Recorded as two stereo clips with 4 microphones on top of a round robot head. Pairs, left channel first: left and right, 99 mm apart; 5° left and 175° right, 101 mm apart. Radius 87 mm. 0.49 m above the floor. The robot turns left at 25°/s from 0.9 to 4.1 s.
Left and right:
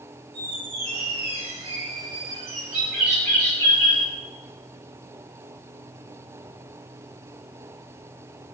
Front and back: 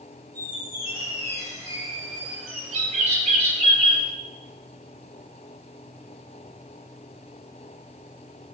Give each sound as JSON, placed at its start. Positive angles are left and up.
{"t": 0.3, "sound": "a squeak", "azimuth_deg": -95, "distance_m": 3.5}
{"t": 2.7, "sound": "a bird", "azimuth_deg": -170, "distance_m": 3.5}